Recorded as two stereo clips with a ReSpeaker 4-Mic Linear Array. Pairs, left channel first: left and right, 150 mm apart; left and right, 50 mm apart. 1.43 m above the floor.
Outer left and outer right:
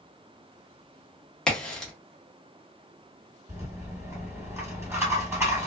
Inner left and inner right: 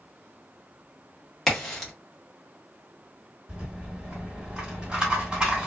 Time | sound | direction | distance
1.5 | a crack | 5° left (ahead or behind) | 1.1 m
3.5 | a rattle | 15° right (ahead or behind) | 1.8 m